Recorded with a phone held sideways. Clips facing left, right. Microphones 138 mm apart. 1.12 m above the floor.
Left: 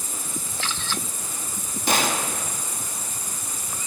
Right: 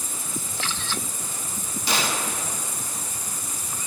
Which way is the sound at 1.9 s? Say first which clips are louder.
Left 3 dB; 50° left (ahead or behind).